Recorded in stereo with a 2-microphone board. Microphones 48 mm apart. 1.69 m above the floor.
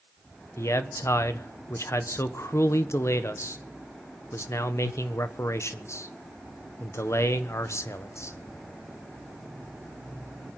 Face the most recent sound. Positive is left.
turn(degrees=70)  # may be behind; listen again after turning